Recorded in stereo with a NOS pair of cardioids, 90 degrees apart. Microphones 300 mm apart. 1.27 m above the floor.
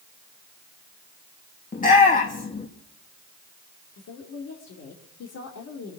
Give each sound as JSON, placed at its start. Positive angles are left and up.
{"t": 1.7, "sound": "a shout", "azimuth_deg": 25, "distance_m": 2.5}
{"t": 4.0, "sound": "a woman speaking", "azimuth_deg": 60, "distance_m": 3.0}